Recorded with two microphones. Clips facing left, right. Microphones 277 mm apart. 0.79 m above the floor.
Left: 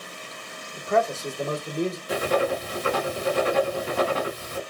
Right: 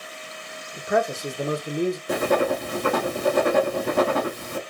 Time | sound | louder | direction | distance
0.8 | a man speaking | even | 15° right (ahead or behind) | 0.8 m
2.1 | writing | right 1 dB | 55° right (ahead or behind) | 0.8 m